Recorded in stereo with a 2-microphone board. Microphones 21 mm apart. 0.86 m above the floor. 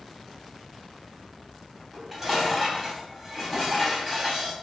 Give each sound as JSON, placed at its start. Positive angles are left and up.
{"t": 1.9, "sound": "dishes clattering", "side_deg": -15, "distance_m": 3.5}